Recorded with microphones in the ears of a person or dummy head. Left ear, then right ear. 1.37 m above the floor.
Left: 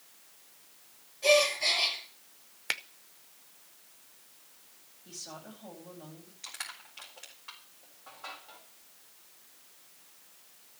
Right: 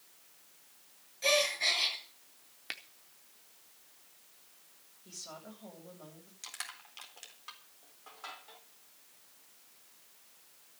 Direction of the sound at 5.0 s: 85° right.